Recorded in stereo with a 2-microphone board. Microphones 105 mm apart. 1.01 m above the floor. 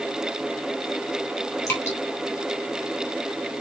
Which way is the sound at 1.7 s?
25° left (ahead or behind).